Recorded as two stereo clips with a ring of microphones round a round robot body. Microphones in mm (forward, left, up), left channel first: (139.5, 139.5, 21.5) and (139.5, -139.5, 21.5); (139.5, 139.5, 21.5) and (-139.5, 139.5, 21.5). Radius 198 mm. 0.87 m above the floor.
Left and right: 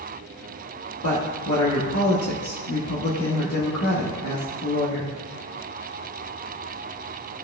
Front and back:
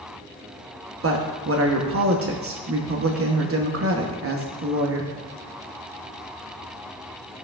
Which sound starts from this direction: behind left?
A woman speaking, at 1.0 s.